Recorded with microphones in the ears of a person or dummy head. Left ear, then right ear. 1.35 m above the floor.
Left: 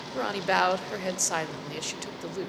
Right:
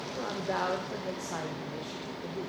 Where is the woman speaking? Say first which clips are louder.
Left 8 dB; 70° left (ahead or behind), 0.5 m.